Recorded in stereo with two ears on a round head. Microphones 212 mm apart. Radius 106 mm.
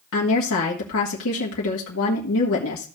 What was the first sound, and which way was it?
A woman speaking, 60° left (ahead or behind).